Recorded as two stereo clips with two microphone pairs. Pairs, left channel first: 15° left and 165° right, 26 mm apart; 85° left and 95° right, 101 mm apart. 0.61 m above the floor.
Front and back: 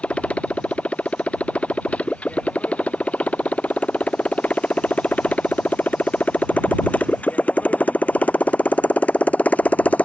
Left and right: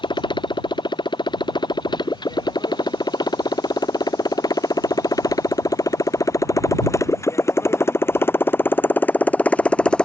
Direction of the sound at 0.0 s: 45° left.